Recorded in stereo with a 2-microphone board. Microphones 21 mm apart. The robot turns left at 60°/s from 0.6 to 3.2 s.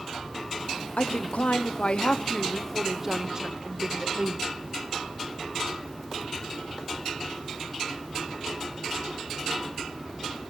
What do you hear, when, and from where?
1.0 s a woman speaking: 115° left, 0.6 m; by 4.4 s 20° right, 0.6 m